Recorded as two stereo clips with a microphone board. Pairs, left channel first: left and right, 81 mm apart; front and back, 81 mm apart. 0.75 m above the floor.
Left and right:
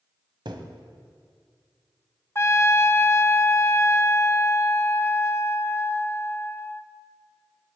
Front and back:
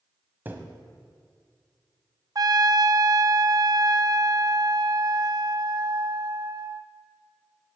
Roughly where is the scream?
No scream in this recording.